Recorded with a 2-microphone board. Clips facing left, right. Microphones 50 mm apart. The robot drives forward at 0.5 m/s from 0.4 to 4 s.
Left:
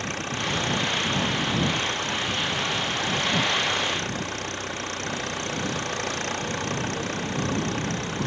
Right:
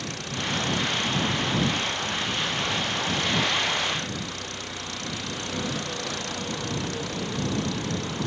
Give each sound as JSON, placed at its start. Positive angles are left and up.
{"t": 0.0, "sound": "an engine running", "side_deg": 40}